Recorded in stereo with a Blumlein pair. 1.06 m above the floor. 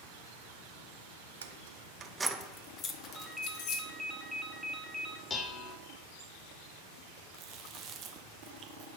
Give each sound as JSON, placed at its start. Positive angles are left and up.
{"t": 1.4, "sound": "keys jangling", "azimuth_deg": -65, "distance_m": 0.6}
{"t": 3.1, "sound": "a ringtone", "azimuth_deg": 5, "distance_m": 0.6}
{"t": 5.3, "sound": "dishes clattering", "azimuth_deg": 15, "distance_m": 0.7}
{"t": 7.3, "sound": "chewing", "azimuth_deg": -30, "distance_m": 0.8}